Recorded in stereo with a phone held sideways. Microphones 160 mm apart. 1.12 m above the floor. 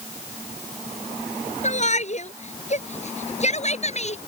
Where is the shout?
45° left (ahead or behind).